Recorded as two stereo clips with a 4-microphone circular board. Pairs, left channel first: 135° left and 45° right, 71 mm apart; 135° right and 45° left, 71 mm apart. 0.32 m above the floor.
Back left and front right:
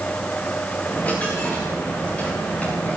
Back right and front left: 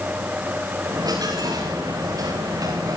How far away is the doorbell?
No doorbell in this recording.